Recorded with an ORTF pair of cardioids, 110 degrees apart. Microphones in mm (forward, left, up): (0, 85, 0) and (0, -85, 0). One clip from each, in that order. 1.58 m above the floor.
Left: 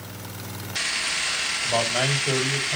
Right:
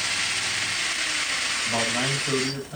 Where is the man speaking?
45° left, 9 m.